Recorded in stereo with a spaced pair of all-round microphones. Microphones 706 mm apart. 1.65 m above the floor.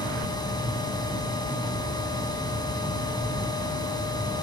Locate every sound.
0.0 s a machine running: 5° left (ahead or behind), 2.5 m